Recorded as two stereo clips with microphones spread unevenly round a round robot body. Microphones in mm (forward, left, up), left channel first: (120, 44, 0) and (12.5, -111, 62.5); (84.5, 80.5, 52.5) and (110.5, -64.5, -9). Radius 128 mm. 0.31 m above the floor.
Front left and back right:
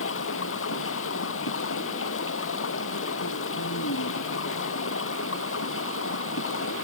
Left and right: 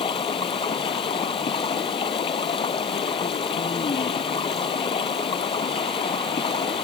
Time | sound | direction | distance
0.0 | running water | 45° left | ?